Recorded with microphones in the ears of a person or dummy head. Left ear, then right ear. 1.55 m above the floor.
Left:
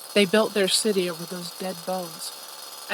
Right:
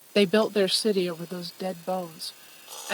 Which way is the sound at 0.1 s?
15° left (ahead or behind).